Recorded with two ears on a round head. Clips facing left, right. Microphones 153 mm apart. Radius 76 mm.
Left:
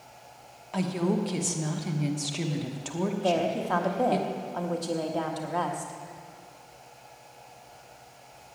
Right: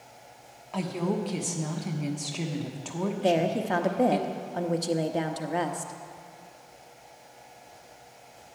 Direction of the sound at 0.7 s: 5° left (ahead or behind).